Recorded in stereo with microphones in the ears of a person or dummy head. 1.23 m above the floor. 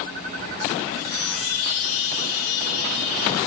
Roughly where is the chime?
Left.